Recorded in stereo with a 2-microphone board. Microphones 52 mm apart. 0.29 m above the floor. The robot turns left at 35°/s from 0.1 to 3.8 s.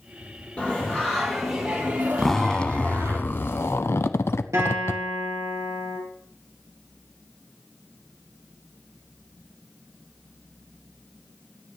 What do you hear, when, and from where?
0.6 s singing: 25° left, 3.5 m; by 3.2 s 65° right, 3.5 m
2.2 s a zipper: 175° left, 0.7 m; by 5.0 s 120° left, 0.7 m
4.5 s a guitar: 70° right (ahead or behind), 4.5 m